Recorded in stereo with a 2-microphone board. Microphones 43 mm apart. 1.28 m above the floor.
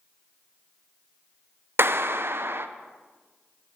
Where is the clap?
55° right (ahead or behind), 0.6 m.